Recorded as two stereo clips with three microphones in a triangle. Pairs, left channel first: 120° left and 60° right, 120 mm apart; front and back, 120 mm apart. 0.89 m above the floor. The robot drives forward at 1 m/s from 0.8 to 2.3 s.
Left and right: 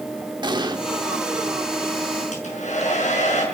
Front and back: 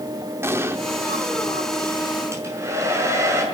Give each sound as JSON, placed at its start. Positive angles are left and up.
{"t": 0.4, "sound": "an explosion", "azimuth_deg": -110, "distance_m": 1.6}
{"t": 2.3, "sound": "a hair dryer", "azimuth_deg": 115, "distance_m": 6.0}